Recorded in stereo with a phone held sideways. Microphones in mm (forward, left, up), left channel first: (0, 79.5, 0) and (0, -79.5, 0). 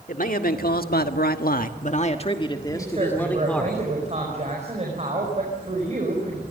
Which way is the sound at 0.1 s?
60° left (ahead or behind).